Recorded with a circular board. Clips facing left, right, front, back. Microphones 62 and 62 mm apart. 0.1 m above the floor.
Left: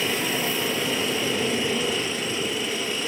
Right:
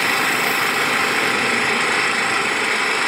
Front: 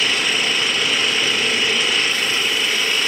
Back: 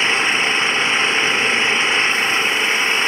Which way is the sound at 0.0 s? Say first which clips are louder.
Right 7 dB, back 3 dB; 120° right.